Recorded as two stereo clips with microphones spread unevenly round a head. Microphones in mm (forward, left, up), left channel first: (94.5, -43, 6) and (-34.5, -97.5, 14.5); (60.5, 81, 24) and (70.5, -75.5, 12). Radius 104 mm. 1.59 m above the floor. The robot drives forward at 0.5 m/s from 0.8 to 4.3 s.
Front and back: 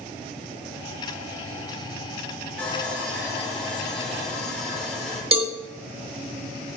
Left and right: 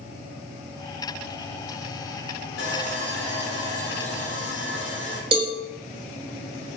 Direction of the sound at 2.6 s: 110° left.